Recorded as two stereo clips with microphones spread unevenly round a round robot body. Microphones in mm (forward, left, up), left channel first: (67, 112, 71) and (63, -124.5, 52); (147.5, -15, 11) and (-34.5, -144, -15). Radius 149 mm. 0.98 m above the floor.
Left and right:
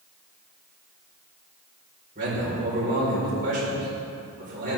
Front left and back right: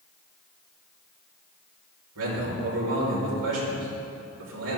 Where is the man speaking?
150° right, 4.5 m.